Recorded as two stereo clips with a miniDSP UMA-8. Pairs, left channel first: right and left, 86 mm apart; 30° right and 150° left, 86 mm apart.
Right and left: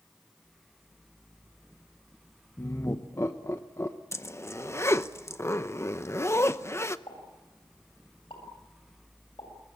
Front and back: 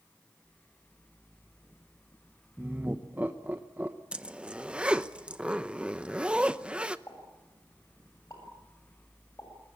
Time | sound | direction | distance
2.6 | laughter | 145° right | 0.9 m
4.1 | a zipper | 135° right | 0.8 m
7.1 | a pop | 80° right | 7.5 m